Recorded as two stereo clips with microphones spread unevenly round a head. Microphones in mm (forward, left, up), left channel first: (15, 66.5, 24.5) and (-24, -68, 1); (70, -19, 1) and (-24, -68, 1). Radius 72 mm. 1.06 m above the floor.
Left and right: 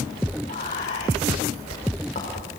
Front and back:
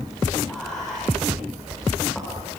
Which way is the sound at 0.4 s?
115° left.